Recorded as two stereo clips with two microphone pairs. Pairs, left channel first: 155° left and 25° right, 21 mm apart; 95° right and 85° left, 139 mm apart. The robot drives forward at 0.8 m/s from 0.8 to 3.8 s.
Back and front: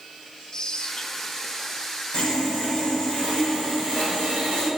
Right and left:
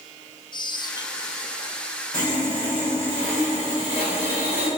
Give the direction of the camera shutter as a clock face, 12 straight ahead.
I don't hear a camera shutter.